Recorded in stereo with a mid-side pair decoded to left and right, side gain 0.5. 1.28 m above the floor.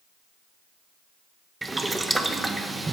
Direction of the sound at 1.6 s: 15° right.